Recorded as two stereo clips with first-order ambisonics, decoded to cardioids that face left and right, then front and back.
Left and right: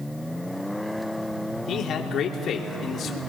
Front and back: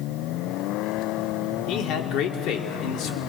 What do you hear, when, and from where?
1.7 s a man speaking: 35° left, 2.5 m